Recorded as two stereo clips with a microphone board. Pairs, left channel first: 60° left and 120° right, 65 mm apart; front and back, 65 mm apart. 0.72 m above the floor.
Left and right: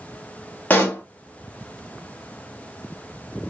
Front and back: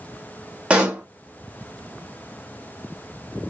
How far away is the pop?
About 1.3 m.